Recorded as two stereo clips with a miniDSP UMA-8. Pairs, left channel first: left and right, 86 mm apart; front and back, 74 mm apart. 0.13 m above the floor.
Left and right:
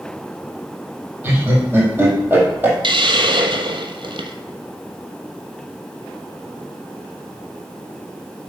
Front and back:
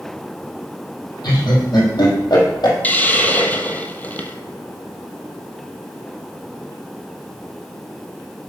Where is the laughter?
25° right, 4.5 m.